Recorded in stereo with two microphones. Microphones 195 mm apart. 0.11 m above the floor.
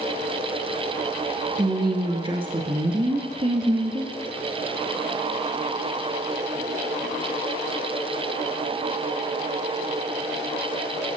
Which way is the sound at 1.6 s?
25° right (ahead or behind).